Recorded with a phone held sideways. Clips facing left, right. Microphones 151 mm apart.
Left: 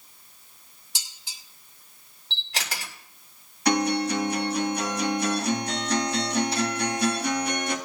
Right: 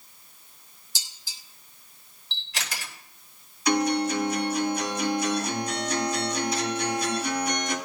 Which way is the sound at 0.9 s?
80° left.